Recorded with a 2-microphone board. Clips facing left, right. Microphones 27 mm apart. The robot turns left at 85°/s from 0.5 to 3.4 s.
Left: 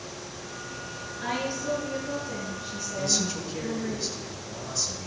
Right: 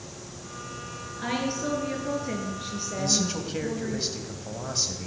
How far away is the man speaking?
About 2.5 m.